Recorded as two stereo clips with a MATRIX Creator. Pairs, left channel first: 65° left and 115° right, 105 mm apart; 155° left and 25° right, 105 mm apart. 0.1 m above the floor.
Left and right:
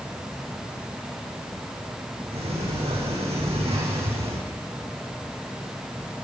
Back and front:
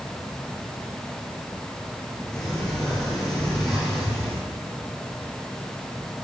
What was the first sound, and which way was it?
A sliding door, 120° right.